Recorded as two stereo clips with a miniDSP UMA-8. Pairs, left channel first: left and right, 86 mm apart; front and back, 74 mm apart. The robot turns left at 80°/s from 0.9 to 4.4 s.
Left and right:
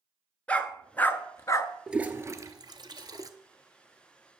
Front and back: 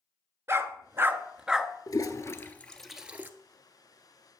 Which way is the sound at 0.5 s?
155° left.